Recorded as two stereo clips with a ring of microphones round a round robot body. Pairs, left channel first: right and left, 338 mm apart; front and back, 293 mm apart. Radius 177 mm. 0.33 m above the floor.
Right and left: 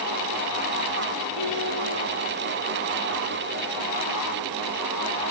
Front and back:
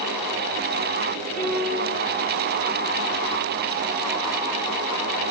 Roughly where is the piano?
Ahead left.